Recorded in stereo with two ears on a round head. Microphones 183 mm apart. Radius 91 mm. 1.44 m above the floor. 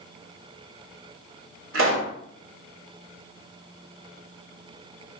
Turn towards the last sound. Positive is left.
turn(degrees=-70)  # may be behind; listen again after turning